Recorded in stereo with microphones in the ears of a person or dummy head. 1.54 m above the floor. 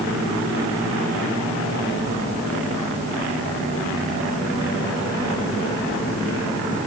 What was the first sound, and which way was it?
Only background noise.